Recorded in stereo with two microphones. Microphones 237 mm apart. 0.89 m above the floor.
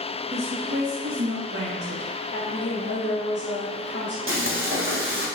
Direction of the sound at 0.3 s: 25° right (ahead or behind).